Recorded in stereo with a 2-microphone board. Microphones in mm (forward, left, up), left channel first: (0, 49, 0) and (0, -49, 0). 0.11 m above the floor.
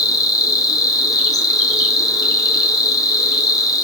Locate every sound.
0.0 s an insect: 35° left (ahead or behind), 1.2 m